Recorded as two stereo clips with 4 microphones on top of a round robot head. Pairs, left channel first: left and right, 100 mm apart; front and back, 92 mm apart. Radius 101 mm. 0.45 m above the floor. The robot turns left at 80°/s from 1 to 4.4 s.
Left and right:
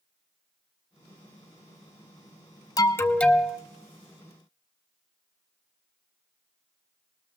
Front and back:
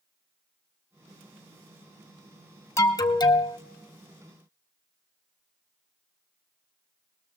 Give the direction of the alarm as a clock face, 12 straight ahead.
10 o'clock.